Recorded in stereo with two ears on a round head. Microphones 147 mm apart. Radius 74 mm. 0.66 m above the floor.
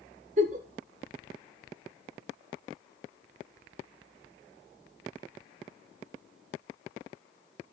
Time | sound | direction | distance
0.4 | a giggle | 45° right (ahead or behind) | 1.7 m